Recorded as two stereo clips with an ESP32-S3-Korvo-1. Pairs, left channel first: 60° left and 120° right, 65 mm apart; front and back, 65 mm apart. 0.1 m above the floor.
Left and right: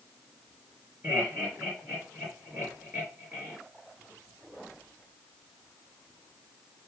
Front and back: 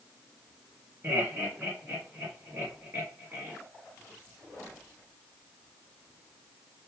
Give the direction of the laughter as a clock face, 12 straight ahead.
5 o'clock.